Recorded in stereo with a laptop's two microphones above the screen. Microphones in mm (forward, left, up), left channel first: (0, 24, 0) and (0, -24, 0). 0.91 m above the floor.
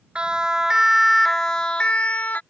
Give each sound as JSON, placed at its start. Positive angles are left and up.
{"t": 0.1, "sound": "a siren", "side_deg": -25}